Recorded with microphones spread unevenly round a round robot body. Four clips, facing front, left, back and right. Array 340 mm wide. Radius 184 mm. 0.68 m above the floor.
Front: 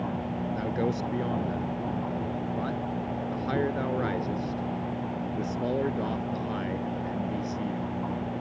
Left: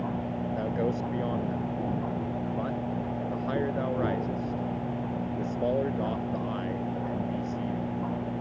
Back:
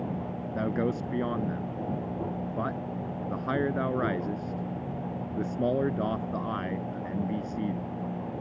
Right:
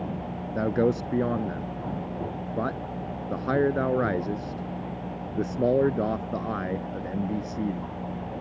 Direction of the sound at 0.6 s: 120° right.